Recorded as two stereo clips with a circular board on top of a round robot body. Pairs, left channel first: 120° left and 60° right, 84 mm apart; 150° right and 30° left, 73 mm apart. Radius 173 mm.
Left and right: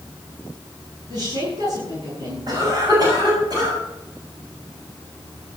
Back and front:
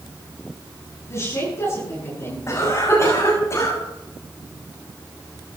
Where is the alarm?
No alarm in this recording.